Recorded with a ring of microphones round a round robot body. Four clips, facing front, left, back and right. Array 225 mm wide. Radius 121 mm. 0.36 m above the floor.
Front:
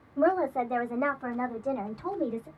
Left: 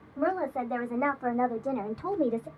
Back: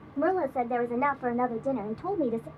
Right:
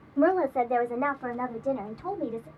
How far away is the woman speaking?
About 1.3 m.